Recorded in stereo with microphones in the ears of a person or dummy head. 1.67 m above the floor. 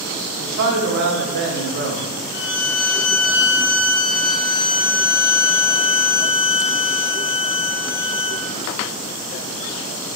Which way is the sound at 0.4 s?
60° right (ahead or behind).